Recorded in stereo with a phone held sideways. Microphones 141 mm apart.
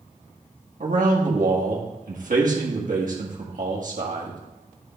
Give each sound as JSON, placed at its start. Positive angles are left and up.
{"t": 0.8, "sound": "a man speaking", "side_deg": -70, "distance_m": 1.6}